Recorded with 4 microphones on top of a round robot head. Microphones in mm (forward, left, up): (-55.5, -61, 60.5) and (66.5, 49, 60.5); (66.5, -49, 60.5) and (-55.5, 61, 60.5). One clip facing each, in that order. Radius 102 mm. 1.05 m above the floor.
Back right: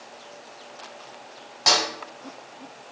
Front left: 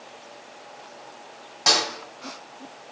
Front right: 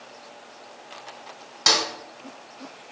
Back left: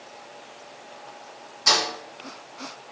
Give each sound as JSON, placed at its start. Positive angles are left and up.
{"t": 1.7, "sound": "a snare drum", "azimuth_deg": -45, "distance_m": 1.7}